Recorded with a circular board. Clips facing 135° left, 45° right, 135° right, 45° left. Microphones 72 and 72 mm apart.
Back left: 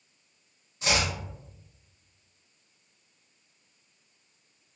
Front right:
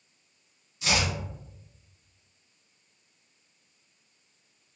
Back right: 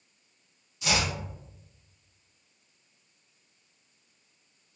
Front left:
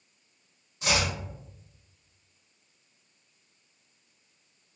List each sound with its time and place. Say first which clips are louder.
0.8 s chopping: even, front left 1 dB; 90° left, 1.9 m